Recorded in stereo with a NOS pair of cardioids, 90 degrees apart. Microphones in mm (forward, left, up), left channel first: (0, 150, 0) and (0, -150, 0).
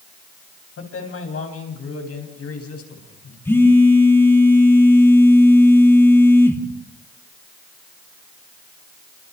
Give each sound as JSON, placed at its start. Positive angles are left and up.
{"t": 0.8, "sound": "a man speaking", "azimuth_deg": 45, "distance_m": 8.0}
{"t": 3.5, "sound": "a phone buzzing", "azimuth_deg": 10, "distance_m": 3.0}